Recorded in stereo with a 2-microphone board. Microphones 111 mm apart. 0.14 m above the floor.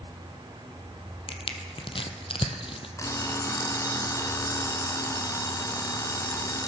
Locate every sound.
1.3 s crushing: 55° left (ahead or behind), 1.0 m
3.0 s an alarm clock: 30° left (ahead or behind), 0.9 m